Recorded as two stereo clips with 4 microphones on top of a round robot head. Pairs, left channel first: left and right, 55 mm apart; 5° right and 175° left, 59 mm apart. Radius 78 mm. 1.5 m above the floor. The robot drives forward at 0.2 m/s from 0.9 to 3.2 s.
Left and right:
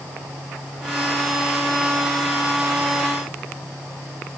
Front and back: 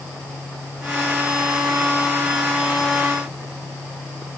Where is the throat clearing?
I don't hear throat clearing.